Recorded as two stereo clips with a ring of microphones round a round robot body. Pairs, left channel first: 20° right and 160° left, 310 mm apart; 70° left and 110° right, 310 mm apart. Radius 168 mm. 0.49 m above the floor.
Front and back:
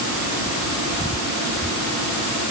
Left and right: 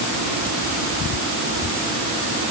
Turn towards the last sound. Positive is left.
No sound to turn to.